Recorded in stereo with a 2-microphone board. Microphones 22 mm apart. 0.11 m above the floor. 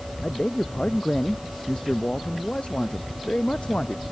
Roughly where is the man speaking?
Left.